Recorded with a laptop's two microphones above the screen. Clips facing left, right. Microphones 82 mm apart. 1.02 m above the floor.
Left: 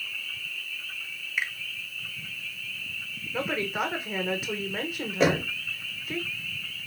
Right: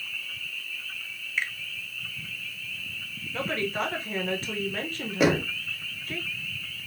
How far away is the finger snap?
About 0.6 m.